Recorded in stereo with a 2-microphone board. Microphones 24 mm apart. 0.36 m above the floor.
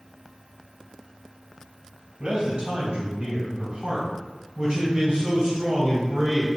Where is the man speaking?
45° right (ahead or behind), 1.8 m; by 6.5 s 55° right (ahead or behind), 4.5 m.